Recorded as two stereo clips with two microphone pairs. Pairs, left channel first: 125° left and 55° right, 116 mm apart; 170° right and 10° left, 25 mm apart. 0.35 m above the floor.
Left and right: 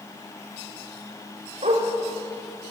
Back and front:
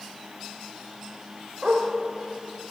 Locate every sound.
1.6 s a dog barking: 45° right, 6 m